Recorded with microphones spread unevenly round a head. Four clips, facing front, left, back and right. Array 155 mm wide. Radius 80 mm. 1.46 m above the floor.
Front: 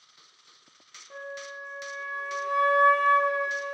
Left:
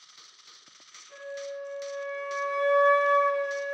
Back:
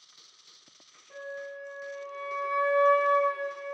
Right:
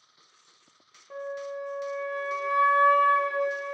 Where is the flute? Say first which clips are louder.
Right 3 dB, even; 70° right, 0.7 m.